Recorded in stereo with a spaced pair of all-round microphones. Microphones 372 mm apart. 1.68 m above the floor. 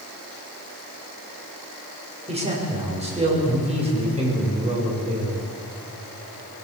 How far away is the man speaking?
About 6.5 m.